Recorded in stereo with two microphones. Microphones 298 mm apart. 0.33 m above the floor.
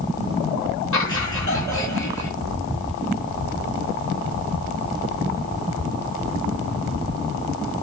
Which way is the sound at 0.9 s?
75° left (ahead or behind).